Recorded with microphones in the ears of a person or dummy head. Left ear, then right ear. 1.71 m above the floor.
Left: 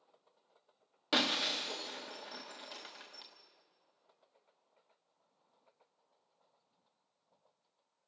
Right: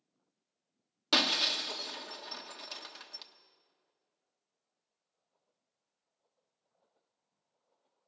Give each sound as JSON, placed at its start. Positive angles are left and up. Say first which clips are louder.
{"t": 1.1, "sound": "breaking glass", "louder": "right 4 dB", "side_deg": -15, "distance_m": 1.1}